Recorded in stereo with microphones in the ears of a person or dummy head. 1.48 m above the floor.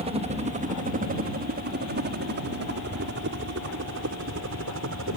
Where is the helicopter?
30° right (ahead or behind); by 5.2 s 65° right (ahead or behind).